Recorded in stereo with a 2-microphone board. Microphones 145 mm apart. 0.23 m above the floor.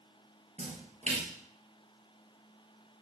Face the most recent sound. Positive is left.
turn(degrees=-50)  # may be behind; listen again after turning